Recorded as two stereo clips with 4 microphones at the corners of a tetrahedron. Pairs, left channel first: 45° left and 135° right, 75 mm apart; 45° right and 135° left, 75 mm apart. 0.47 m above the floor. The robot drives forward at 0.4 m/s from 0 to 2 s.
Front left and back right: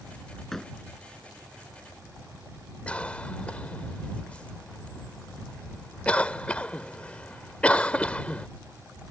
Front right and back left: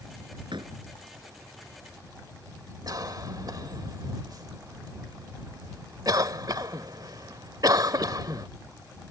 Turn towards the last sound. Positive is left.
turn(degrees=115)